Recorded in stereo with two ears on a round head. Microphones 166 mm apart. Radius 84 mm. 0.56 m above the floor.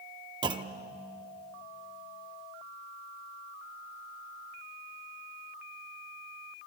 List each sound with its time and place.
0.4 s a clunk: 25° right (ahead or behind), 0.8 m